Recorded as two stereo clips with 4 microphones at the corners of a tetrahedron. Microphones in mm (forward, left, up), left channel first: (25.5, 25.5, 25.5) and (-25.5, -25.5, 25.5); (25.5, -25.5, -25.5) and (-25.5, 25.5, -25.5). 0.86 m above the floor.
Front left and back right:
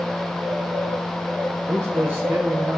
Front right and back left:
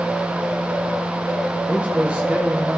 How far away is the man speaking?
About 0.9 m.